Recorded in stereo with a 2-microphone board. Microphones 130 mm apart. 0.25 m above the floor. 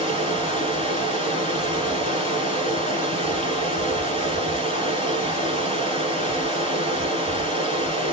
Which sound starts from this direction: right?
Running water, at 0.0 s.